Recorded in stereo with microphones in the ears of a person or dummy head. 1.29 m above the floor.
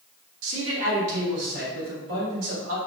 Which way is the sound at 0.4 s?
70° right (ahead or behind).